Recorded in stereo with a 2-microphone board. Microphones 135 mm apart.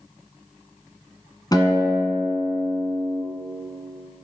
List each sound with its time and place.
1.5 s a guitar: 30° left (ahead or behind), 1.5 m